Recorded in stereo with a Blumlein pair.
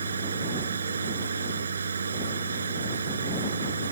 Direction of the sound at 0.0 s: 70° right.